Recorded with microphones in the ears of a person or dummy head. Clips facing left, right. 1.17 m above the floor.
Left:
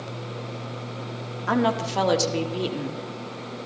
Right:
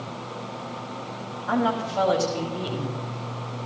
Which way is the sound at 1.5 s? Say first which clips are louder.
Left 1 dB; 80° left.